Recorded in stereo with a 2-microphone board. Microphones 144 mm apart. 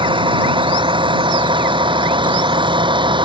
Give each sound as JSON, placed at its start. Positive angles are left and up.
{"t": 0.0, "sound": "a vehicle", "side_deg": -35}